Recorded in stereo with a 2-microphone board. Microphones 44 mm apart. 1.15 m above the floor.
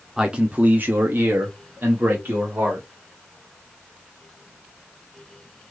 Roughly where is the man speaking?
Centre.